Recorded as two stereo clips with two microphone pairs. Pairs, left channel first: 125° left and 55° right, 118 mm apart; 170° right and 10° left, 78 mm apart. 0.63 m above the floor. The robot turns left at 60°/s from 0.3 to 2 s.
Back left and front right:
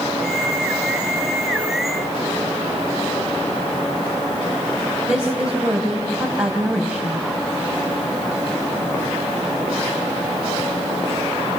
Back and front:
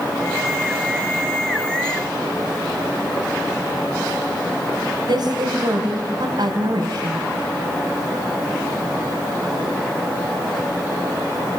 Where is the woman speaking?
30° left, 4 m.